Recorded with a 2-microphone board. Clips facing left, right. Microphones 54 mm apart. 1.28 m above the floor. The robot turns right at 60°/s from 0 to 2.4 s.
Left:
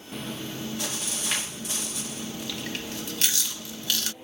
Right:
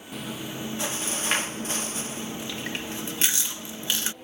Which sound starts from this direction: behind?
Chewing, at 0.1 s.